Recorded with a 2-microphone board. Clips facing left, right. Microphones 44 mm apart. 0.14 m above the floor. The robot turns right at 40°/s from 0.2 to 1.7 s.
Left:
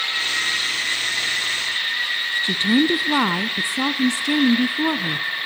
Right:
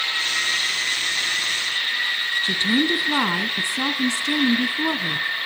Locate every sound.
2.4 s a woman speaking: 15° left (ahead or behind), 1.1 m